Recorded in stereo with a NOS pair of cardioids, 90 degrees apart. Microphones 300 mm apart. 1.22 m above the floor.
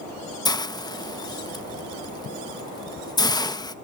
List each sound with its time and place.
0.5 s a hiss: 15° left, 1.1 m